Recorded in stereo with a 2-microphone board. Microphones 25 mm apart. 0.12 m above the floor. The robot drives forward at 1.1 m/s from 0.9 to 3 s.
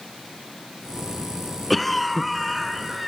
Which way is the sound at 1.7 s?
Centre (ahead or behind).